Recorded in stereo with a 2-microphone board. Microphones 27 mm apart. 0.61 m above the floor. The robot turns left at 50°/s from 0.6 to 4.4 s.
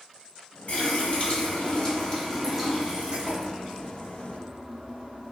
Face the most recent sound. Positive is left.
turn(degrees=-95)